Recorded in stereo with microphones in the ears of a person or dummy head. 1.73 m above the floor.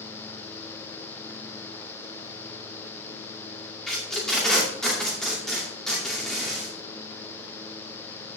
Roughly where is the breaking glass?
No breaking glass in this recording.